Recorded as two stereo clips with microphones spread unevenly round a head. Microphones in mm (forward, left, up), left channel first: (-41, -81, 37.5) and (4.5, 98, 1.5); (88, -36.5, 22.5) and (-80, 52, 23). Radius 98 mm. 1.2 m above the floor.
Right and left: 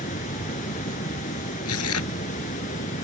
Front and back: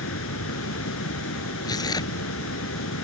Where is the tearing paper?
100° right.